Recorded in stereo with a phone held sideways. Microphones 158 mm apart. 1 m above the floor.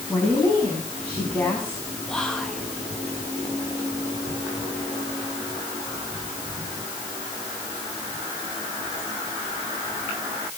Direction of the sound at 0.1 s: 10° left (ahead or behind).